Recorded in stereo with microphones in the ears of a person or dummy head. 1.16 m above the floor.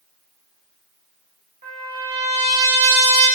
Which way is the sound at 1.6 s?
35° right (ahead or behind).